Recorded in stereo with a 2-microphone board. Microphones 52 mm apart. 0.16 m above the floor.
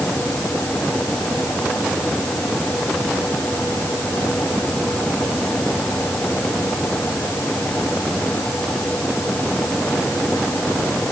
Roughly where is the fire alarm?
No fire alarm in this recording.